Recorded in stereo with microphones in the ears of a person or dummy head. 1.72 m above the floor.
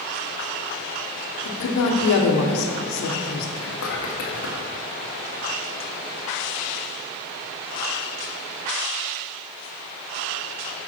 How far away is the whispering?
About 1.6 m.